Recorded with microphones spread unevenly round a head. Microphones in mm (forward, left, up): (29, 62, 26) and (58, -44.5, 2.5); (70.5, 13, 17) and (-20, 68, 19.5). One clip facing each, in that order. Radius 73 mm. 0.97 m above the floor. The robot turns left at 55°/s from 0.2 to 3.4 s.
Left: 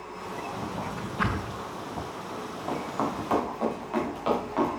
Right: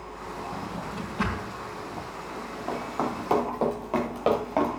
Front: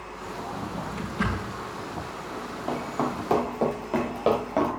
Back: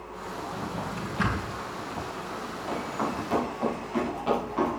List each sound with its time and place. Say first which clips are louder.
0.5 s a drawer: left 1 dB, even; 125° right, 3.5 m; by 1.6 s 175° left, 3.5 m
2.3 s running footsteps: even, front 4 dB; 50° left, 5.5 m; by 4.7 s 30° right, 6 m